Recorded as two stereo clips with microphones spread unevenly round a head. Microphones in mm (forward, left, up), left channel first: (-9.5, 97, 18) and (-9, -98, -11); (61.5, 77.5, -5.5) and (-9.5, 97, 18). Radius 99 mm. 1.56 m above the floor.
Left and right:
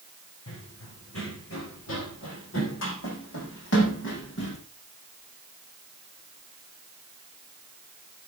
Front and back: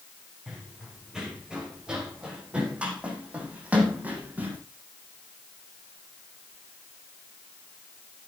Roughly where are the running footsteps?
Left.